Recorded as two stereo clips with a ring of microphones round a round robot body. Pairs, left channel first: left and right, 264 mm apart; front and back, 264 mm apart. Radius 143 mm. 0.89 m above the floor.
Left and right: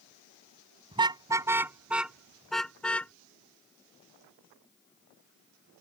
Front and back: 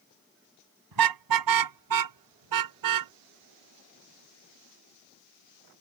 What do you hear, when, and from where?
0.9 s a car horn: 165° right; by 3.1 s 175° left